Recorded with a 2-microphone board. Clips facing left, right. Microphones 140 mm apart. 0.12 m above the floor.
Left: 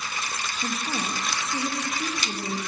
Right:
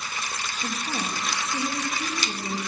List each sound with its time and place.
0.6 s a woman speaking: 30° left (ahead or behind), 3.5 m